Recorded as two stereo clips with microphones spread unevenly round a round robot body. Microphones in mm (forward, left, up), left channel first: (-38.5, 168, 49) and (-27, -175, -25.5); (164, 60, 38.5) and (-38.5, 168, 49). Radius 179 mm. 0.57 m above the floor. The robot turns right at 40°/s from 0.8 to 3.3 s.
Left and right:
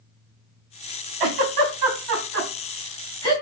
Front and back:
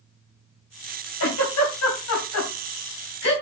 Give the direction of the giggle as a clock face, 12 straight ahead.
2 o'clock.